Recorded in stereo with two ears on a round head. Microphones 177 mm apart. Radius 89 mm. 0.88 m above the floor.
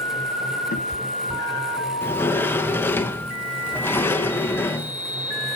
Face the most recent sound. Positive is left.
turn(degrees=10)  # may be behind; listen again after turning